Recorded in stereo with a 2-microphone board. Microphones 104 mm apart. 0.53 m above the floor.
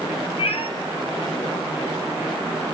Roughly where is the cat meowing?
Left.